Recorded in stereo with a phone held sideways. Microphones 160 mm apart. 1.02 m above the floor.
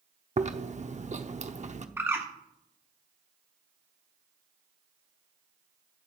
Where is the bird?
15° right (ahead or behind), 1.4 m.